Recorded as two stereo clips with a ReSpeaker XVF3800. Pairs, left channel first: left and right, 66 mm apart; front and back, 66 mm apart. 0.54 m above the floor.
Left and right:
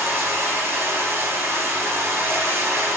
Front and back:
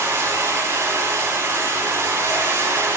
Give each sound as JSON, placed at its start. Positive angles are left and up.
{"t": 0.0, "sound": "running water", "azimuth_deg": -135, "distance_m": 3.0}